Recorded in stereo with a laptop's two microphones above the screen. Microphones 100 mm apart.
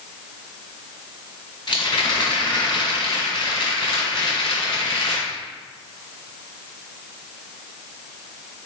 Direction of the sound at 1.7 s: 50° left (ahead or behind).